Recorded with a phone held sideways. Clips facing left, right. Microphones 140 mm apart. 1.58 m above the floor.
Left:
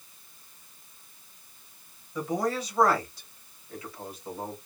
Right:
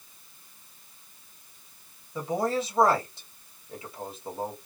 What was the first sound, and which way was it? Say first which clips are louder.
A man speaking: right 1 dB; 25° right (ahead or behind).